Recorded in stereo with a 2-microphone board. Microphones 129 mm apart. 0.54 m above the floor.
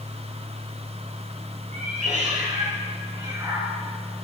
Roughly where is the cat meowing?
Right.